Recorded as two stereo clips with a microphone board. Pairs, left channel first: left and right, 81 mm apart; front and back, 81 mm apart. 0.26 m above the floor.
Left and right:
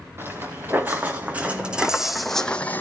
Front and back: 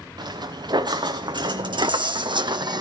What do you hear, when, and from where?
0.2 s footsteps: 155° right, 2 m; by 2.8 s 155° left, 0.8 m